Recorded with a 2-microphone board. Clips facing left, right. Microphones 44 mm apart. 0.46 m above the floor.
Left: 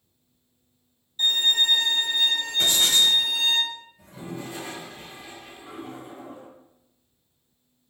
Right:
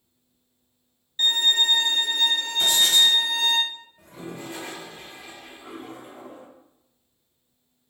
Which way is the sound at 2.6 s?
25° left (ahead or behind).